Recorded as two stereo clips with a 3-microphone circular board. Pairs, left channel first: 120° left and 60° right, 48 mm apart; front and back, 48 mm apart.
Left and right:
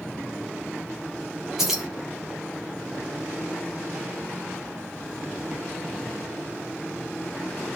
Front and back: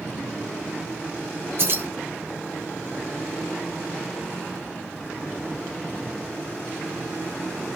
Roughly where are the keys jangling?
Behind right.